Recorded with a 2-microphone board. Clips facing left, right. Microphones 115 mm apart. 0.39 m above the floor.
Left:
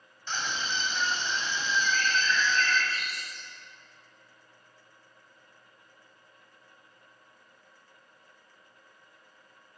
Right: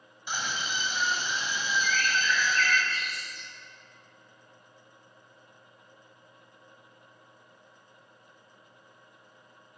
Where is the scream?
10° right (ahead or behind), 2 m.